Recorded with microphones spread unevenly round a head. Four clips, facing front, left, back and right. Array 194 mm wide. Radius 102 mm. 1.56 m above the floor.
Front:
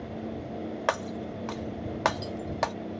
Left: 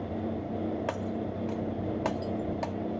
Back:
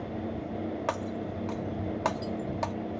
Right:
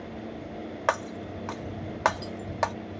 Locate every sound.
0.9 s breaking glass: straight ahead